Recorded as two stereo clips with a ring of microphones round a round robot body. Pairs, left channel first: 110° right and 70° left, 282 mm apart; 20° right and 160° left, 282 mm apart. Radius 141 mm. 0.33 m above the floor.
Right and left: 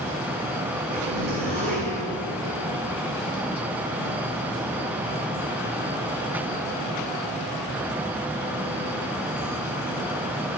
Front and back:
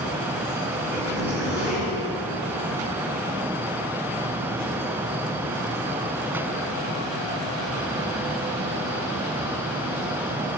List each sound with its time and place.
0.9 s a zipper: 75° left, 3 m